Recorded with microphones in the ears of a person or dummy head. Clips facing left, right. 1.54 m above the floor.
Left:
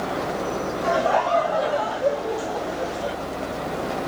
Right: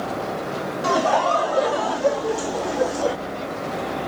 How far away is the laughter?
About 3.5 m.